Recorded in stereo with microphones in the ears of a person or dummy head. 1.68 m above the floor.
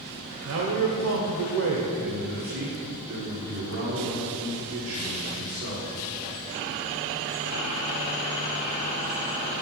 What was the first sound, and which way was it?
A man speaking, 65° right (ahead or behind).